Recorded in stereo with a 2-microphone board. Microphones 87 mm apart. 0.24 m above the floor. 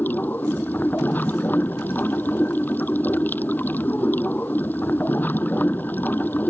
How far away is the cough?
I don't hear a cough.